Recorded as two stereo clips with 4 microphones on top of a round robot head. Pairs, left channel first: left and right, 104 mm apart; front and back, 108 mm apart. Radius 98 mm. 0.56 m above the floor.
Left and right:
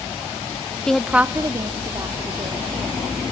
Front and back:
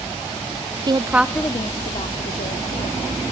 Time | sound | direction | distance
0.9 | a woman speaking | 170° left | 0.7 m